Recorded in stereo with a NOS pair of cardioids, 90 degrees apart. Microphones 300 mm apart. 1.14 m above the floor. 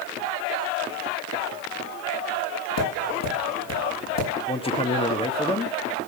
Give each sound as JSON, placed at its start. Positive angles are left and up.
{"t": 2.8, "sound": "tapping", "azimuth_deg": 60, "distance_m": 5.5}
{"t": 4.5, "sound": "a man speaking", "azimuth_deg": 20, "distance_m": 1.6}